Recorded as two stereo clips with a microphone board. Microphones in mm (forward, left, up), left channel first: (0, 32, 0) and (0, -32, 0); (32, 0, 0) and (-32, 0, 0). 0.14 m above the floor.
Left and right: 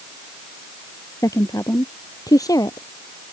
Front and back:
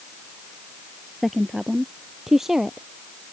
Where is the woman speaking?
90° left; by 2.9 s 100° left.